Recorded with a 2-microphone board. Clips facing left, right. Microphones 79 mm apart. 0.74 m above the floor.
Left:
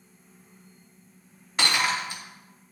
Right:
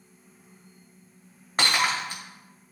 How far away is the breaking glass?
About 2 m.